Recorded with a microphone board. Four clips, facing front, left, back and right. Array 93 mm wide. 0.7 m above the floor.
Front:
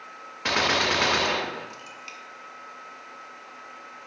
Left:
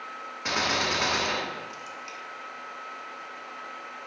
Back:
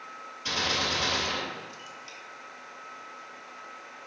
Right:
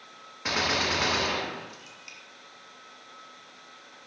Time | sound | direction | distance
0.5 | a gunshot | straight ahead | 0.8 m